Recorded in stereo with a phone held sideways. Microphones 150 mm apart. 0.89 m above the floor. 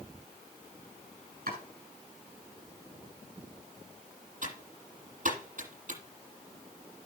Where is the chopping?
85° right, 8 m.